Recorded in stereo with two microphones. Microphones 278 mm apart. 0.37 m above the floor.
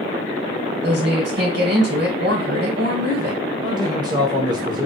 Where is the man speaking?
15° right (ahead or behind), 1.3 m.